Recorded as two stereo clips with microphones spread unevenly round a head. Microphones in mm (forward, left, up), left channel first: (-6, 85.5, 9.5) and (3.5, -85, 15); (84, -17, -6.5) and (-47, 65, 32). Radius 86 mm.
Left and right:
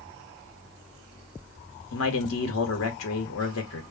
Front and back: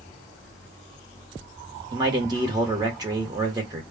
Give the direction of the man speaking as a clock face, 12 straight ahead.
9 o'clock.